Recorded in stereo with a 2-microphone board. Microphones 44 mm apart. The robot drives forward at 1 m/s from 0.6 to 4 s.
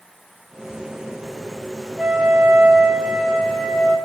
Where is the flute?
25° right (ahead or behind), 0.7 m; by 4.0 s 10° right (ahead or behind), 1.6 m.